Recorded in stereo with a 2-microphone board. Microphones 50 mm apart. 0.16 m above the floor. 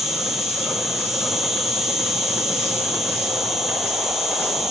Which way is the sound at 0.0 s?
10° right (ahead or behind).